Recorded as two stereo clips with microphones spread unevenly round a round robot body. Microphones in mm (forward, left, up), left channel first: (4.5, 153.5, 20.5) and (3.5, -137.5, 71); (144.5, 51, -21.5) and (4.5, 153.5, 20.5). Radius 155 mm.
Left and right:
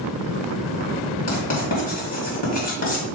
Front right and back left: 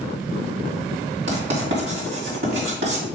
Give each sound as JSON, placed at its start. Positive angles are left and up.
{"t": 1.3, "sound": "writing", "azimuth_deg": 140, "distance_m": 2.0}